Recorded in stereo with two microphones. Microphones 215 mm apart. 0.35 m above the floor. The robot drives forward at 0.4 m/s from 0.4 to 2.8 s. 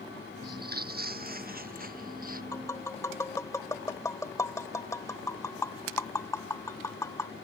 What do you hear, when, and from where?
0.4 s footsteps: 50° right (ahead or behind); by 2.4 s 40° right (ahead or behind)
2.5 s tapping: 15° left (ahead or behind)